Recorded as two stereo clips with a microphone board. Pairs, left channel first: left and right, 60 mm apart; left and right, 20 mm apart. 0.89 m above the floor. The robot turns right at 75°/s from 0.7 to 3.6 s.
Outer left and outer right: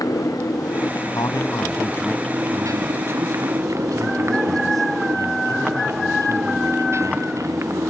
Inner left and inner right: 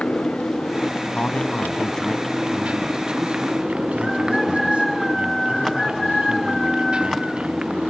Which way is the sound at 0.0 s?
95° left.